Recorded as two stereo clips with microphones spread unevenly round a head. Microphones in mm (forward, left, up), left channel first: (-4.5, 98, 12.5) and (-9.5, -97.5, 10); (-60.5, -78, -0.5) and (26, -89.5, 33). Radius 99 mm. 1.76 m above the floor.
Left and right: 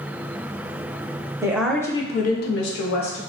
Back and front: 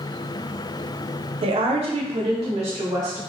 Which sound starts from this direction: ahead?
A woman speaking, at 1.4 s.